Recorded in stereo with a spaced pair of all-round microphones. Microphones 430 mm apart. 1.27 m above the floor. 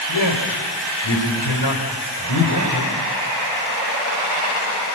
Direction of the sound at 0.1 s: 70° left (ahead or behind).